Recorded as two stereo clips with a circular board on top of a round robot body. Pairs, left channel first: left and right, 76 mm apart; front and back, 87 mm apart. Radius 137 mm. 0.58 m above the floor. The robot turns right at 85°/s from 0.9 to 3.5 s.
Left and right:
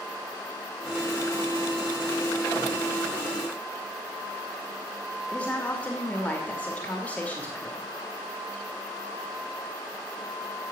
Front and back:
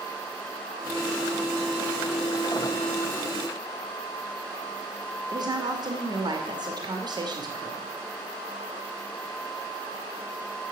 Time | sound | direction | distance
5.3 | a woman speaking | 160° left | 1.6 m